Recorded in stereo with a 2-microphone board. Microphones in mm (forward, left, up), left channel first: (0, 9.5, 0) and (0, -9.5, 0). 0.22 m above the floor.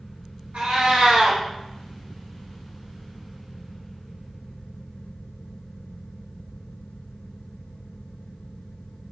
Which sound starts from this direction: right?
A cat meowing, at 0.5 s.